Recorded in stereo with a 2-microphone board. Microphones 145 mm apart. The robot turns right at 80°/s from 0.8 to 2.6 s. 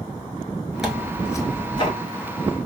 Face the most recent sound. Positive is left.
turn(degrees=135)